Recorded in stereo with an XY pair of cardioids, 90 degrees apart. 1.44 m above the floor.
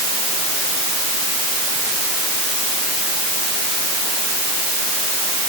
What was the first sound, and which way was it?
Only background noise.